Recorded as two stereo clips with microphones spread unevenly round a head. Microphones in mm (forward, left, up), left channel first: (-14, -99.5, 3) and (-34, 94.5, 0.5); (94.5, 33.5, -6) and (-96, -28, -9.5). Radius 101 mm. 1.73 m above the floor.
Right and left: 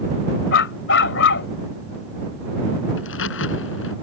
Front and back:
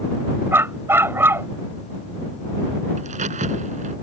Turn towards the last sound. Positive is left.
turn(degrees=-105)